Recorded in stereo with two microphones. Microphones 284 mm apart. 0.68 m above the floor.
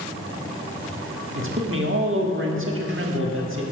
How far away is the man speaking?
About 1.4 m.